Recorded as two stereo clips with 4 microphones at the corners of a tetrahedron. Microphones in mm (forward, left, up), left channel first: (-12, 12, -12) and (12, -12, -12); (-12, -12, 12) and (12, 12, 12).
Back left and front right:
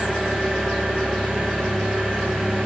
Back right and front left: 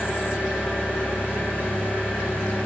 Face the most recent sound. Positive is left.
turn(degrees=-110)